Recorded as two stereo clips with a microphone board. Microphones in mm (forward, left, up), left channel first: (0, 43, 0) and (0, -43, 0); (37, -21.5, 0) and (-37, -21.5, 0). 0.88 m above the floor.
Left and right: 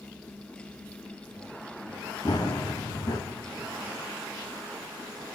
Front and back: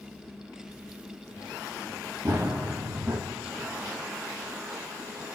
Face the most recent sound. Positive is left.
turn(degrees=125)